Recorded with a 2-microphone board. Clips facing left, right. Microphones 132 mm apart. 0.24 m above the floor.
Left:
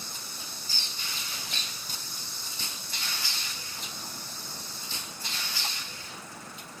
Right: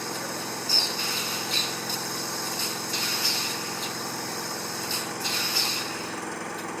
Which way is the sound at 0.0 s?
80° right.